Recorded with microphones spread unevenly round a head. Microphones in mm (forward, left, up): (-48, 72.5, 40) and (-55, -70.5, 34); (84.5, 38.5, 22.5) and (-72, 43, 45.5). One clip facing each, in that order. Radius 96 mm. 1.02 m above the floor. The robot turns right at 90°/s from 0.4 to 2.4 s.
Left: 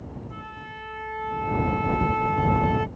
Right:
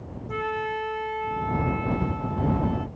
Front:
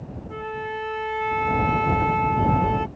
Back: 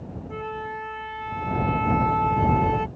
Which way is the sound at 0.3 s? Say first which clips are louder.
Right 12 dB, front 2 dB; 90° right.